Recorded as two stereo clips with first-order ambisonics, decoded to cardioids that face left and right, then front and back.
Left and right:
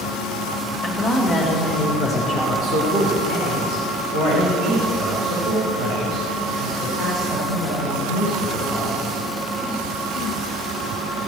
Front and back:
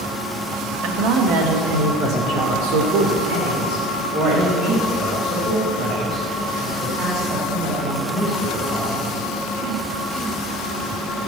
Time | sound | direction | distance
0.8 | a woman speaking | straight behind | 2 m